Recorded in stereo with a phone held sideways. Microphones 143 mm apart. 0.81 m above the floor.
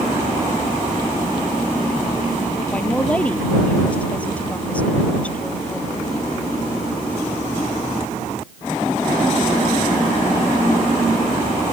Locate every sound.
2.7 s a woman speaking: 10° left (ahead or behind)